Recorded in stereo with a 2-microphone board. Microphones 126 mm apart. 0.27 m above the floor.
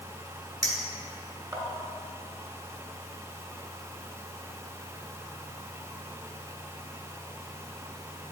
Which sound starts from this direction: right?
A clink, at 0.6 s.